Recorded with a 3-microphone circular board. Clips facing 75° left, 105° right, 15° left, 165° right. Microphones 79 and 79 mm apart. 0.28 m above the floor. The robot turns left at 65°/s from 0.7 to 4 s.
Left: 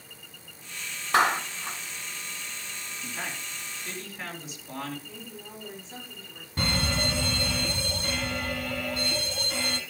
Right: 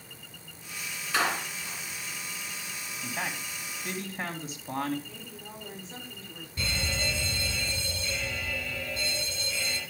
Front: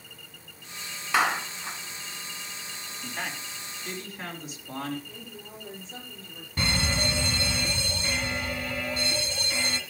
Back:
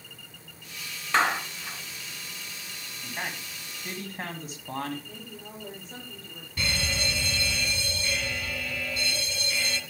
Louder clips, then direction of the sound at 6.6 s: Left 5 dB, front 3 dB; 70° left.